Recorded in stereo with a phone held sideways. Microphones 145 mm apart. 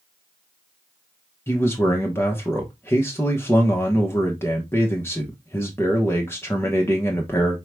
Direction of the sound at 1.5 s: 15° left (ahead or behind).